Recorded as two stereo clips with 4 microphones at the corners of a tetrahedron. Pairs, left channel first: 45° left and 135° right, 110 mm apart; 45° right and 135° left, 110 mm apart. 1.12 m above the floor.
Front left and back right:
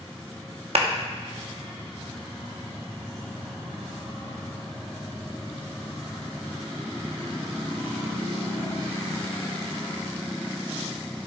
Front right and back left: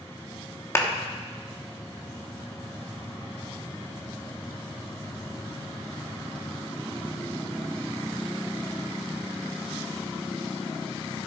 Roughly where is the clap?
Right.